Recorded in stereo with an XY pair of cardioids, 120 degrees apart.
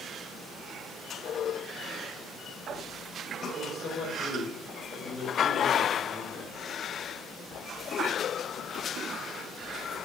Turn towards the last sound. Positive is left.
turn(degrees=30)